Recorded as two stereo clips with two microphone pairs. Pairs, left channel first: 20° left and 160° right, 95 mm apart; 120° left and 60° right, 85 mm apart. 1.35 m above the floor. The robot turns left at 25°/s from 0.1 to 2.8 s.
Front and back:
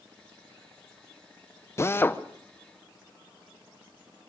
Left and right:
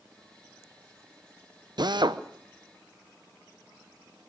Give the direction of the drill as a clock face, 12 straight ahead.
1 o'clock.